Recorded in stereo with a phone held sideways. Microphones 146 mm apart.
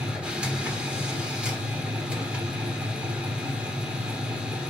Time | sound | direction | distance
0.0 | a machine running | 5° right (ahead or behind) | 1.4 m